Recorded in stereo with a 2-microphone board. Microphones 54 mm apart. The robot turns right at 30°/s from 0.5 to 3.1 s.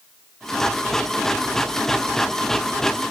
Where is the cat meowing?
No cat meowing in this recording.